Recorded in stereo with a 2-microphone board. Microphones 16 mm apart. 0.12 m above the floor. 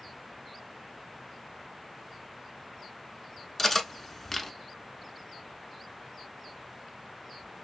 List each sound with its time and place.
3.6 s cutlery clinking: 15° left (ahead or behind), 0.6 m